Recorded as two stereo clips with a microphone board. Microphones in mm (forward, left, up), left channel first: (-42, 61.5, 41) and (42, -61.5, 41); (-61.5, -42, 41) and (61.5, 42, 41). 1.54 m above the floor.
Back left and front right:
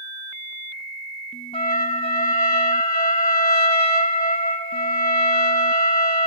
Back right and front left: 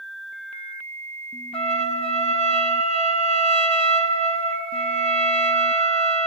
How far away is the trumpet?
About 3 m.